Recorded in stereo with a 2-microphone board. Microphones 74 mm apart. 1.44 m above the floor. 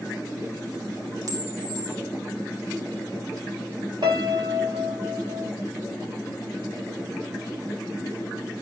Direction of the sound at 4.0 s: 75° right (ahead or behind).